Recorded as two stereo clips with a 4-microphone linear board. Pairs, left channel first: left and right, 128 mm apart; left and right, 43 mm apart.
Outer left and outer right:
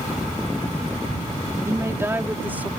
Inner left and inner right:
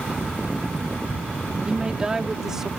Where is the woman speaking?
25° right (ahead or behind); by 2.7 s 10° right (ahead or behind).